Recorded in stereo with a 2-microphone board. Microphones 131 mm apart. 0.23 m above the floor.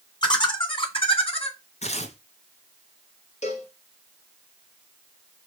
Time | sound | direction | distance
0.2 | laughter | 35° left (ahead or behind) | 2 m
1.8 | tearing paper | 60° left (ahead or behind) | 1.4 m
3.4 | a cowbell | 60° left (ahead or behind) | 1.8 m